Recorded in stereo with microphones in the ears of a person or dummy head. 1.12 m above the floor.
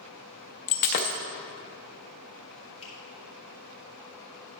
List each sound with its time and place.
0.7 s breaking glass: 35° left (ahead or behind), 0.5 m
2.8 s a finger snap: 30° left (ahead or behind), 4 m